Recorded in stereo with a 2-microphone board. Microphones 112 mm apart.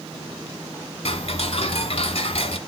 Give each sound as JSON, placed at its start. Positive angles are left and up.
{"t": 1.1, "sound": "ticking", "side_deg": 60, "distance_m": 1.0}